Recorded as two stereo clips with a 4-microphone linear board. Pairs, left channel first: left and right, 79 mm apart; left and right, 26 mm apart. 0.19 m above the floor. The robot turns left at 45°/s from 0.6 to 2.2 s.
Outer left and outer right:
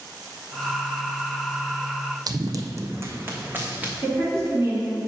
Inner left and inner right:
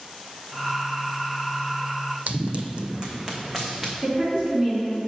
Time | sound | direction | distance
2.3 | running footsteps | 60° right (ahead or behind) | 0.5 m
4.0 | a woman speaking | 35° right (ahead or behind) | 2 m